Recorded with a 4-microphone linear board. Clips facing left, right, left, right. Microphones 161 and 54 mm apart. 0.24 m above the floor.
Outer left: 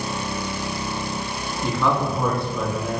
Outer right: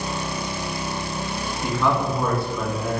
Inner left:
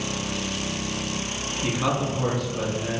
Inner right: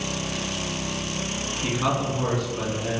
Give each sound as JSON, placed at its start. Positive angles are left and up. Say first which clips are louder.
{"t": 1.6, "sound": "a man speaking", "louder": "even, even", "side_deg": -5, "distance_m": 3.0}